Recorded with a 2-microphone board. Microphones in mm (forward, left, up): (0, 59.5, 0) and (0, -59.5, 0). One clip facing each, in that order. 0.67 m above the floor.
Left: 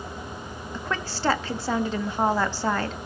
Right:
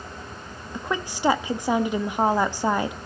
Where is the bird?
I don't hear a bird.